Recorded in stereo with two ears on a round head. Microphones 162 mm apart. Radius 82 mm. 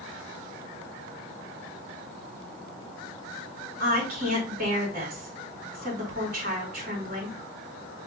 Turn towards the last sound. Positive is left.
turn(degrees=-45)  # may be behind; listen again after turning